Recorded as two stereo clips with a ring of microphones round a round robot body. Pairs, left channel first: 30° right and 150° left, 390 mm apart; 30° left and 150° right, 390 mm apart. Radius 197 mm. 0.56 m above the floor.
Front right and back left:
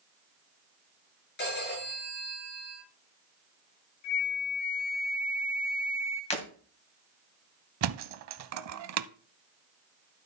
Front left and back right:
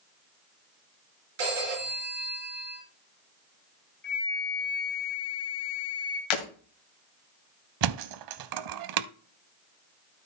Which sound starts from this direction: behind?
A thud, at 7.8 s.